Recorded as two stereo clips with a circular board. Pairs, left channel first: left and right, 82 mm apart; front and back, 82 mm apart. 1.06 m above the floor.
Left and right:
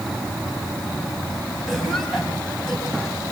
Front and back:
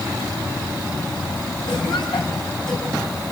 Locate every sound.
1.7 s a cough: 5° left, 6 m